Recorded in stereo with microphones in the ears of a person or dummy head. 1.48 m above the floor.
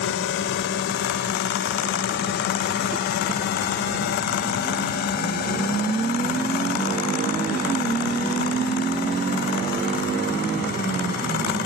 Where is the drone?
60° left (ahead or behind); by 11.7 s 50° left (ahead or behind).